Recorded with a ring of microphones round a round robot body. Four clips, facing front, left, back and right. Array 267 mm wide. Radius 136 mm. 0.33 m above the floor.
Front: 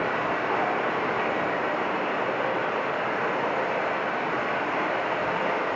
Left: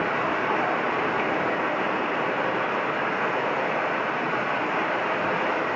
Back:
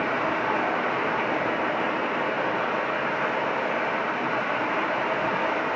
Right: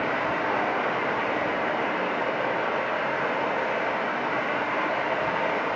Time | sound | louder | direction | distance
0.0 | running water | left 1 dB, back 1 dB | 120° left | 2.5 m